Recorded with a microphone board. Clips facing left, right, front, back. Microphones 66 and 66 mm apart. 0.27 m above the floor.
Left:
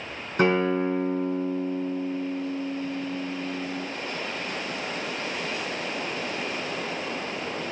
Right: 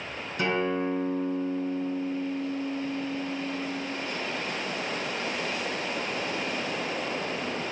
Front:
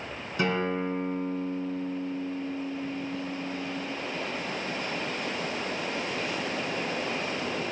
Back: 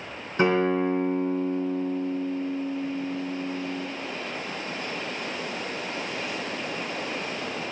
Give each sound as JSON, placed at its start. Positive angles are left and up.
{"t": 0.4, "sound": "a guitar", "azimuth_deg": 125, "distance_m": 3.0}